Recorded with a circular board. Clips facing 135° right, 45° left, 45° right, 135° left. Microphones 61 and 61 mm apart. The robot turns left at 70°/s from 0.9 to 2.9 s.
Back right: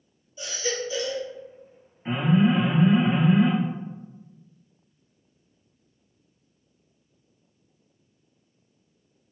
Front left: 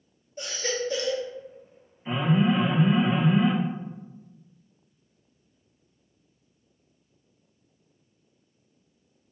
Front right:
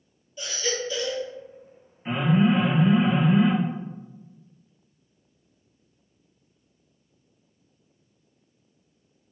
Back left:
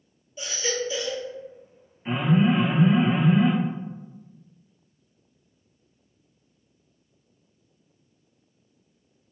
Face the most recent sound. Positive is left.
turn(degrees=180)